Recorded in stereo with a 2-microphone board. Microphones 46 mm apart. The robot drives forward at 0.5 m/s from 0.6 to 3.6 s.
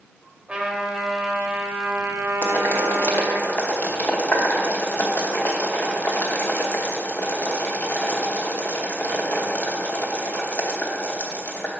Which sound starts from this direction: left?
Boiling, at 2.4 s.